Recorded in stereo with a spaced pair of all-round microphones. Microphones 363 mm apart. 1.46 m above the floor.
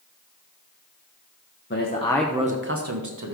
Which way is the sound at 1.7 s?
35° left (ahead or behind).